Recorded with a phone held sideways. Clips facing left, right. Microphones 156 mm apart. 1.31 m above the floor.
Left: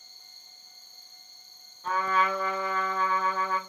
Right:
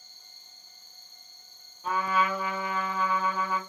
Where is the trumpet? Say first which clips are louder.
Even; 10° right (ahead or behind), 0.8 m.